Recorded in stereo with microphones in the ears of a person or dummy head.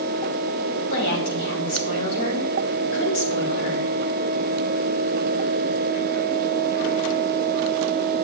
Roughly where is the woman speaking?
Left.